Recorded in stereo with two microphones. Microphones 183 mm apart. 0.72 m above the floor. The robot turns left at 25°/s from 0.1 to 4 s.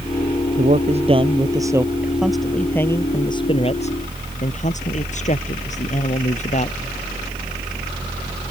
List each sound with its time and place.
0.6 s a man speaking: 135° right; by 6.8 s 140° left